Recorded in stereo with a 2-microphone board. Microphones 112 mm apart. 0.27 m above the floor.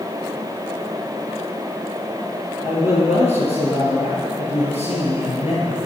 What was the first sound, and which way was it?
A man speaking, 70° left (ahead or behind).